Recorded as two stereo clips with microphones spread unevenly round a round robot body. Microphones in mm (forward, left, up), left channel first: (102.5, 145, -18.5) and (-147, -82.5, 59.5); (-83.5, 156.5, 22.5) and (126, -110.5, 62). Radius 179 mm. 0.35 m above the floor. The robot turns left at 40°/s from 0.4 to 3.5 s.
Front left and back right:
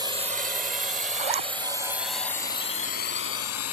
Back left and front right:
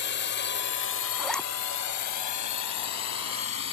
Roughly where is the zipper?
Behind right.